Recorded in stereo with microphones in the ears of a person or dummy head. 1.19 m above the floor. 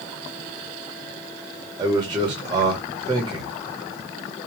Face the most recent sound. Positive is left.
turn(degrees=-20)  # may be behind; listen again after turning